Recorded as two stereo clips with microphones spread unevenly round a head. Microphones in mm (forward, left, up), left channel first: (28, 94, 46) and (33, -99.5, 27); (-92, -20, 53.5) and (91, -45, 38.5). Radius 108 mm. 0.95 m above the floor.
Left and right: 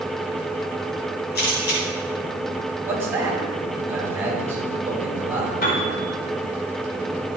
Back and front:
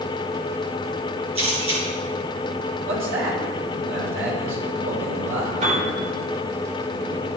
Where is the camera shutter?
55° left, 5 m.